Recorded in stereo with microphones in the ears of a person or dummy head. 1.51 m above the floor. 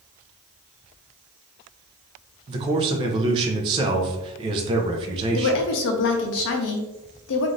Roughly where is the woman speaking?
Left.